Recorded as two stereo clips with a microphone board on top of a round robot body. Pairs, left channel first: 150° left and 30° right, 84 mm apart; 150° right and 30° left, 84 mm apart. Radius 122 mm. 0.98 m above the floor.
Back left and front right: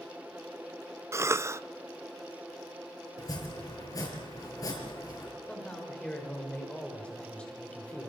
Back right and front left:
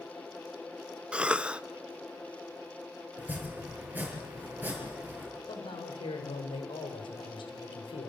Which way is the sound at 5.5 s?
135° right.